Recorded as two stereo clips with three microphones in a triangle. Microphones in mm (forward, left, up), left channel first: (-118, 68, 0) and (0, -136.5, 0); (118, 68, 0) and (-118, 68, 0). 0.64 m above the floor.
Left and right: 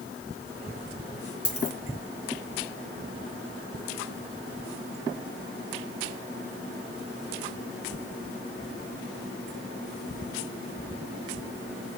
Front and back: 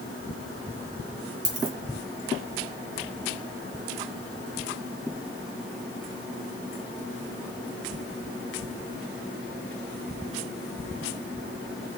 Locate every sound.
1.4 s a dropped coin: 105° left, 1.7 m